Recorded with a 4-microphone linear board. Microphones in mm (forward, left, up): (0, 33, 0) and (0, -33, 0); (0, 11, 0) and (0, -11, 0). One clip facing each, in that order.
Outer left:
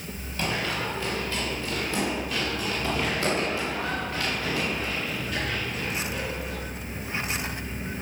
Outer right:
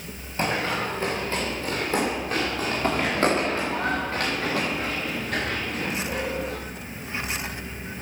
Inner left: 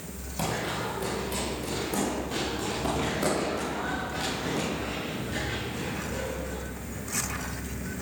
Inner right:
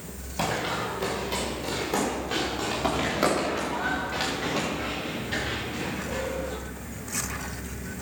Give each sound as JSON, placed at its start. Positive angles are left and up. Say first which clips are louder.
{"t": 0.4, "sound": "running footsteps", "louder": "outer right 3 dB, inner right 3 dB", "side_deg": -35, "distance_m": 5.5}